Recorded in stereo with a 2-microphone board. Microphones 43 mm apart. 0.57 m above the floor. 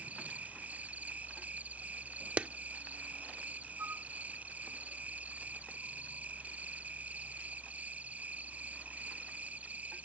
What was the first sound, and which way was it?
An insect, 35° right (ahead or behind).